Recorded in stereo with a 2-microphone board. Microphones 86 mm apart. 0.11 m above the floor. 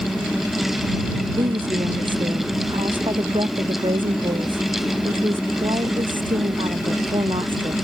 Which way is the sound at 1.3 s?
65° right (ahead or behind).